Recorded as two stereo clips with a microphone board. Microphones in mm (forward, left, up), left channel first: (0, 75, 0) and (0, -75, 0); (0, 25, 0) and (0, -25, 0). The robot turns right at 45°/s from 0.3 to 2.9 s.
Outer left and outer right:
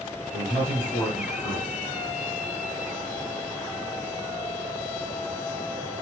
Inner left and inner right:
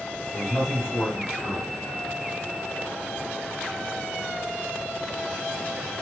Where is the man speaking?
Centre (ahead or behind), 1.7 m; by 1.8 s 20° left (ahead or behind), 1.7 m.